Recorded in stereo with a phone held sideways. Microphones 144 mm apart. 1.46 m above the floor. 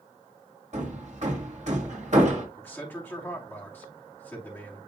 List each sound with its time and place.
0.7 s hammering: 55° right (ahead or behind), 1.6 m
2.6 s a man speaking: 15° left (ahead or behind), 2.5 m